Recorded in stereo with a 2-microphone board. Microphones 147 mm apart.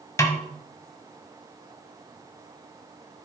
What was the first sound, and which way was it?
A snare drum, 20° left (ahead or behind).